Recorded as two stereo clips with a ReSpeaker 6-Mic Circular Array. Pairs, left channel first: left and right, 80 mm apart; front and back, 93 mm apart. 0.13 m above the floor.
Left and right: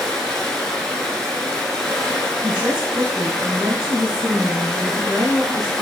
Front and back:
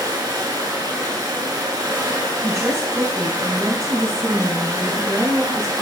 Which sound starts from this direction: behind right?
A woman speaking, at 2.4 s.